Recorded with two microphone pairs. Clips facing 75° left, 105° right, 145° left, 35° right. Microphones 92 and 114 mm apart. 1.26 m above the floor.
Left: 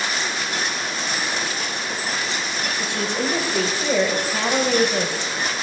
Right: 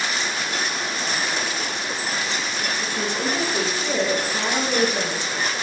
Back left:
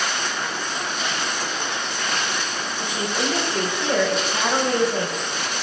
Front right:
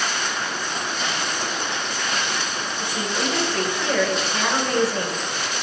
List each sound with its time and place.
2.8 s a woman speaking: 75° left, 0.8 m